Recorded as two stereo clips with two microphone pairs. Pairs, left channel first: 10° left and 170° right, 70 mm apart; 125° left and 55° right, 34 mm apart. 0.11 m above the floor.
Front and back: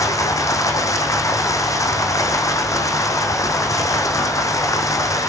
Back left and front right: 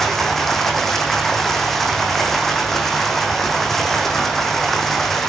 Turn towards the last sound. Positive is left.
turn(degrees=45)